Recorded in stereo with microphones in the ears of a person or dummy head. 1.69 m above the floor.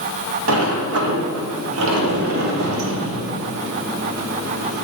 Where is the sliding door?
80° right, 1.2 m.